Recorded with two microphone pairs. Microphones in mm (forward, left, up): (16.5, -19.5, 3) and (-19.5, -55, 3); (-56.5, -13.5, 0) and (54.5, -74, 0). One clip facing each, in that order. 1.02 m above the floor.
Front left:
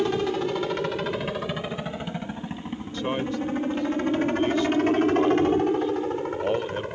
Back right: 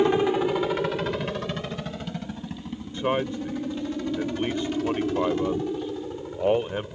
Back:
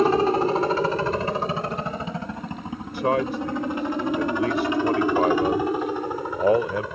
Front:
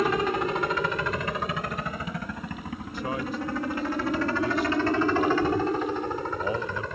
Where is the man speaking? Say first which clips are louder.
Back right 2 dB, back 9 dB; 160° left.